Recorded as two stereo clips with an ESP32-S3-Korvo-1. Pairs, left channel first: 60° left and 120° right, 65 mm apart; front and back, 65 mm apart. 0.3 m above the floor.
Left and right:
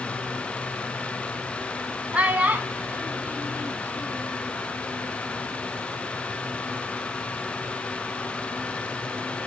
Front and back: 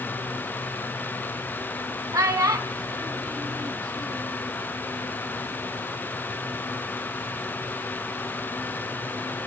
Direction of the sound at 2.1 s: 175° left.